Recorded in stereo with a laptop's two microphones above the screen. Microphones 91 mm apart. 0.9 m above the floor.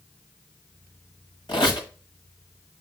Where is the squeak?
60° left (ahead or behind), 1.4 m.